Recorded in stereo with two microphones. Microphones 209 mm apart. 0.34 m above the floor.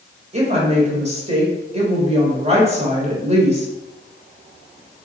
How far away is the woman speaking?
About 1.5 m.